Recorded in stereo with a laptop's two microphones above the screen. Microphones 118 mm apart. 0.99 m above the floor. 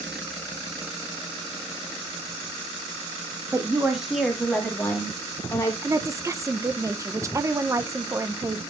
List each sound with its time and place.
3.5 s a woman speaking: 25° right (ahead or behind), 1.5 m; by 5.7 s 25° left (ahead or behind), 3.5 m
5.8 s a woman speaking: 25° right (ahead or behind), 0.7 m